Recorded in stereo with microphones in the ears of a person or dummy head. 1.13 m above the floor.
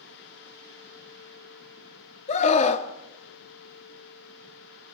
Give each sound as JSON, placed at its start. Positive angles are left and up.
{"t": 2.3, "sound": "a scream", "side_deg": 40, "distance_m": 1.7}